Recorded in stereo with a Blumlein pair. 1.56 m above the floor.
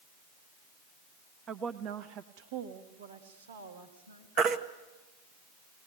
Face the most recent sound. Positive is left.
turn(degrees=-35)